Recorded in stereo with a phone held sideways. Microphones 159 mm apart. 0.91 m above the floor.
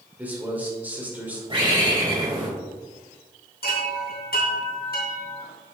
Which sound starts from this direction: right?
A bird, at 1.5 s.